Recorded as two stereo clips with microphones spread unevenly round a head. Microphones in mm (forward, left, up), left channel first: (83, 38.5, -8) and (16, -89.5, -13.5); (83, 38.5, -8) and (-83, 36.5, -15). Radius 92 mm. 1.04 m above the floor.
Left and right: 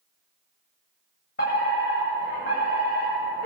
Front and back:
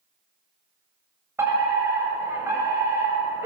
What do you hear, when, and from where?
1.4 s a fire alarm: 105° left, 8.5 m